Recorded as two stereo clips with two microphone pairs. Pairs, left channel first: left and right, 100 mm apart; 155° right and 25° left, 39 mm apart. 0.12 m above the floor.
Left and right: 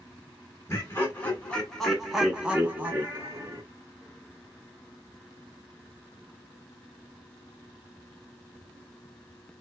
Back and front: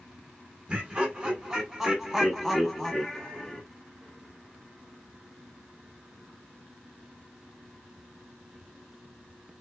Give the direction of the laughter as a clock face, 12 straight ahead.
10 o'clock.